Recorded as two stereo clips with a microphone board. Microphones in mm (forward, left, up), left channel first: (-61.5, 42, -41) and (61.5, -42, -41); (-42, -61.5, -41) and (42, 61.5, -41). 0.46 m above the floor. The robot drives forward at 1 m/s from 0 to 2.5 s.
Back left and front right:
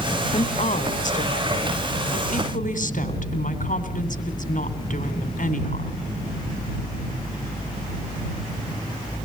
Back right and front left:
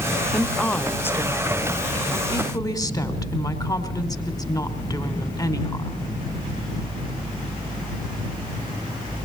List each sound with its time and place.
0.3 s a woman speaking: 140° left, 0.9 m; by 6.1 s 170° left, 3 m